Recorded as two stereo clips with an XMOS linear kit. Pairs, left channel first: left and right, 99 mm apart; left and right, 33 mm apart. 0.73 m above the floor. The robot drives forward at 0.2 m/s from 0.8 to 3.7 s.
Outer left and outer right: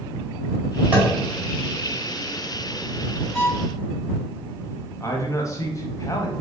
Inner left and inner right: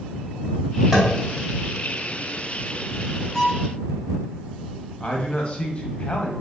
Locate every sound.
0.9 s tapping: 15° right (ahead or behind), 1.1 m; by 1.1 s 20° right (ahead or behind), 1.0 m
3.3 s a violin: 5° left (ahead or behind), 1.4 m
5.0 s a man speaking: 30° left (ahead or behind), 0.6 m